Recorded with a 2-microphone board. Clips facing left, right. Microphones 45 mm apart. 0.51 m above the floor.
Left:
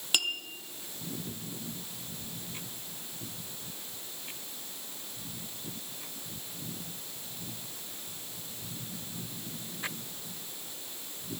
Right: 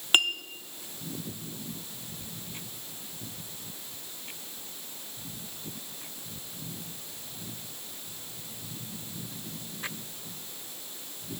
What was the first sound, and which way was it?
A clink, 40° right (ahead or behind).